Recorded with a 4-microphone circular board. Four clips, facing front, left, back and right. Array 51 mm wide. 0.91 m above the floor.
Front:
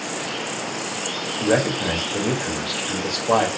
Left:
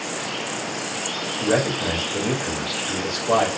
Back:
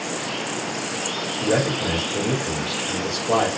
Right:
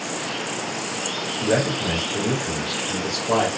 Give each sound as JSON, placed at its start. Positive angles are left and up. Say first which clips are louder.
{"t": 1.4, "sound": "a man speaking", "louder": "even, front 2 dB", "azimuth_deg": 25, "distance_m": 2.0}